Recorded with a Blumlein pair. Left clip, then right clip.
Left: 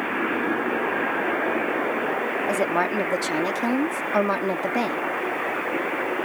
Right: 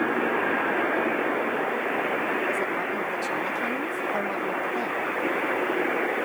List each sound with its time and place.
2.5 s a woman speaking: 30° left